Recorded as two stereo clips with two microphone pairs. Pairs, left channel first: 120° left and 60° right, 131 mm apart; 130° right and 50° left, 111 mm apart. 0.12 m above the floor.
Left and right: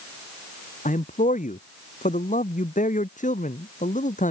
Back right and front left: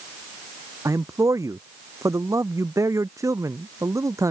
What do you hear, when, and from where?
0.8 s a man speaking: 115° left